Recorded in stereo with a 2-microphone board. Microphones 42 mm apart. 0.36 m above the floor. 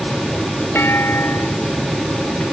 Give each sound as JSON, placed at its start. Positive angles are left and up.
{"t": 0.8, "sound": "a clunk", "side_deg": 60}